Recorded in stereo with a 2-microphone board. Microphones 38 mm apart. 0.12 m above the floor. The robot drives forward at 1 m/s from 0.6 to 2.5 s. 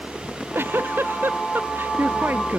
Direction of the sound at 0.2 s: 90° right.